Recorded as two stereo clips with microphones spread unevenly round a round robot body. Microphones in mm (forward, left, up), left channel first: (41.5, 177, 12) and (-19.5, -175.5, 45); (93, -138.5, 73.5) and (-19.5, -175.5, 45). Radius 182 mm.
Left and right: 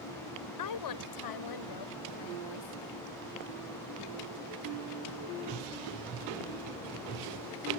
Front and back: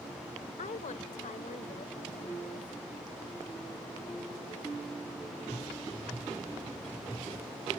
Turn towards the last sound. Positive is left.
turn(degrees=70)